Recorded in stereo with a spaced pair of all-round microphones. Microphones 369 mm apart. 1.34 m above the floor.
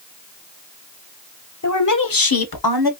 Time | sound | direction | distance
1.6 | a woman speaking | 45° left (ahead or behind) | 0.7 m